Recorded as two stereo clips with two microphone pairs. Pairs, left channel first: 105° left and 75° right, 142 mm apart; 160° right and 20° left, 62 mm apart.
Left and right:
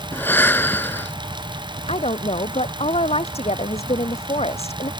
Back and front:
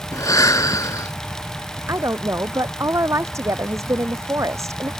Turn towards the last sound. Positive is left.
turn(degrees=60)